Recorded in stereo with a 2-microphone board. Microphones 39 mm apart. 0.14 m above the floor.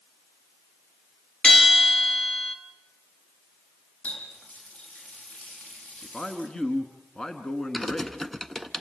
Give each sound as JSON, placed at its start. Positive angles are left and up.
{"t": 1.4, "sound": "a bell", "side_deg": 25, "distance_m": 1.5}
{"t": 4.0, "sound": "a running tap", "side_deg": 40, "distance_m": 4.0}
{"t": 6.0, "sound": "a man speaking", "side_deg": 25, "distance_m": 1.3}
{"t": 7.7, "sound": "typing on a keyboard", "side_deg": 10, "distance_m": 0.7}